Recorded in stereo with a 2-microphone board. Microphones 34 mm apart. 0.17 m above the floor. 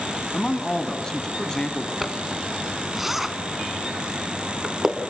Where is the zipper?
10° right (ahead or behind), 1.4 m.